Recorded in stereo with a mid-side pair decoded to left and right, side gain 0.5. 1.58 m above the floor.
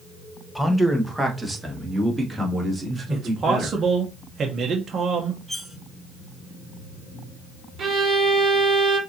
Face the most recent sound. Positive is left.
turn(degrees=-40)